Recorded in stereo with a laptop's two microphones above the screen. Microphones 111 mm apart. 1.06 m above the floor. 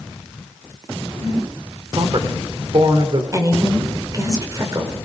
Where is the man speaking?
45° right (ahead or behind), 3 m.